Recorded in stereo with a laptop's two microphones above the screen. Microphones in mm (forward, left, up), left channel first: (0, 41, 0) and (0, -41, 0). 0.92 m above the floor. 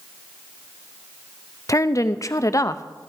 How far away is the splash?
No splash in this recording.